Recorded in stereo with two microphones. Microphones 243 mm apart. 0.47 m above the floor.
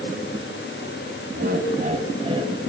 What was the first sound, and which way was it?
Laughter, 45° right (ahead or behind).